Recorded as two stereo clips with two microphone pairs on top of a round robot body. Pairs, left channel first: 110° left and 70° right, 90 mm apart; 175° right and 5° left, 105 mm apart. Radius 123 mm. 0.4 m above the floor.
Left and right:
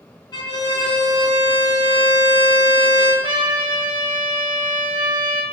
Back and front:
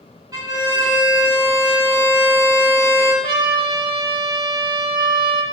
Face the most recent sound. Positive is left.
turn(degrees=-45)